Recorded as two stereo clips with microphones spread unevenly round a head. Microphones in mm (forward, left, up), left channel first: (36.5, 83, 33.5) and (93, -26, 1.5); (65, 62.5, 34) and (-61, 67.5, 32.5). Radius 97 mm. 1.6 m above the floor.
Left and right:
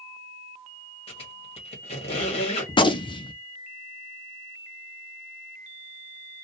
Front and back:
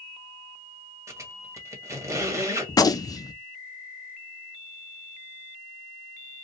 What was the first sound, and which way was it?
A squeak, 115° left.